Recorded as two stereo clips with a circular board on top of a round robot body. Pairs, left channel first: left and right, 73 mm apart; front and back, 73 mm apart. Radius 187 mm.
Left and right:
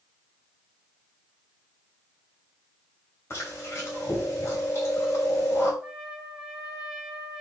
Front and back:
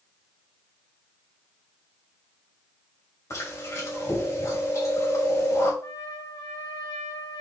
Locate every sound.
3.3 s chewing: 40° left, 3.5 m
5.8 s a trumpet: 15° right, 3 m